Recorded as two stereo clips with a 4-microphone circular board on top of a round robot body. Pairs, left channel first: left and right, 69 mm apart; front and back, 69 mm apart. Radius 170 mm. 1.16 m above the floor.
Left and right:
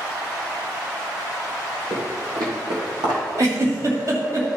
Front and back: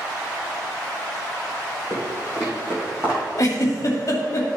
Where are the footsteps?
110° right, 2.5 m; by 3.2 s 115° right, 3 m.